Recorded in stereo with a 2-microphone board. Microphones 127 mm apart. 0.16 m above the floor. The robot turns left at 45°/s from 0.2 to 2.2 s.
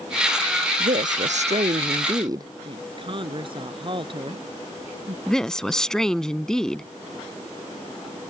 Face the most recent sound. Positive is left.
turn(degrees=5)  # may be behind; listen again after turning